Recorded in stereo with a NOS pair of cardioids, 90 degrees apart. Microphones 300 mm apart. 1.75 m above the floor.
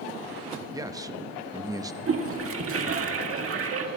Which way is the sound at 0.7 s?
10° right.